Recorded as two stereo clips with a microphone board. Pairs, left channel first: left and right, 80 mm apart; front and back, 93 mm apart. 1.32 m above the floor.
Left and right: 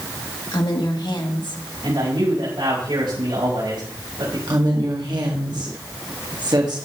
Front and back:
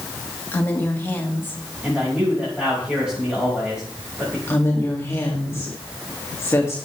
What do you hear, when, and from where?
0.5 s a woman speaking: 65° left, 1.8 m
1.8 s a man speaking: 105° right, 6 m
4.5 s a woman speaking: 60° right, 2 m